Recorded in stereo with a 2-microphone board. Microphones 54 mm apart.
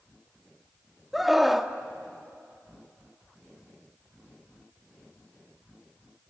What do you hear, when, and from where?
1.1 s a scream: centre (ahead or behind), 1.1 m